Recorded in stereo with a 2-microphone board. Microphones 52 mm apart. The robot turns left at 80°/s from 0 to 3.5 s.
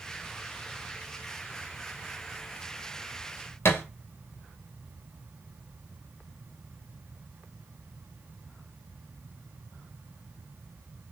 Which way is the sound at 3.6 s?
60° left (ahead or behind).